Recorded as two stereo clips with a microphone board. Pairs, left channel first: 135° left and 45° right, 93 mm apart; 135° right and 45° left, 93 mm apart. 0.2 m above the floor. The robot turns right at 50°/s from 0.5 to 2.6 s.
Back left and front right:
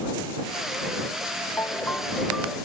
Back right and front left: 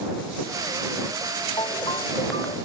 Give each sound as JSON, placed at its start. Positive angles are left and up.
{"t": 1.6, "sound": "a ringtone", "azimuth_deg": -170}